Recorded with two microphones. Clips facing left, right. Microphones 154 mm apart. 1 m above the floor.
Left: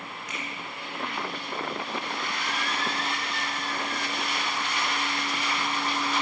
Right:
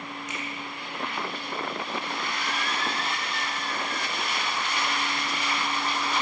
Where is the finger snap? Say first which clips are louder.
Even; 25° right (ahead or behind), 8 m.